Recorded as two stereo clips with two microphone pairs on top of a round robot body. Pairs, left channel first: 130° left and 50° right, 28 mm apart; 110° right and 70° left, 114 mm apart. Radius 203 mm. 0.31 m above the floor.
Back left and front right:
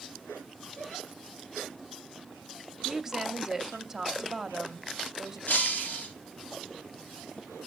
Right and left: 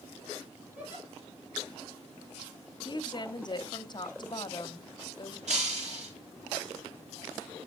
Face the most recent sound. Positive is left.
turn(degrees=90)